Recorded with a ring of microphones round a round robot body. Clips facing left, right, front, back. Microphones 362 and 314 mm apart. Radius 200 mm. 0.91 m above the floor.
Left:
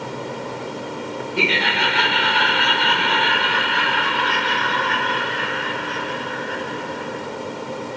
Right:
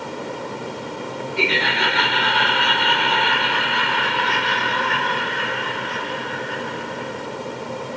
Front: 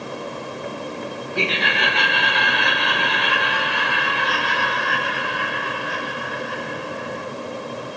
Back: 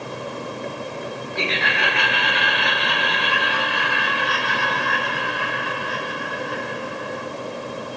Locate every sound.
1.4 s laughter: 50° left, 1.3 m; by 7.3 s 15° left, 4 m